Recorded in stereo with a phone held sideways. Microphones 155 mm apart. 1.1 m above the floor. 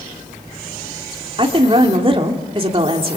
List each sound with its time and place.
1.4 s a woman speaking: 35° right (ahead or behind), 3 m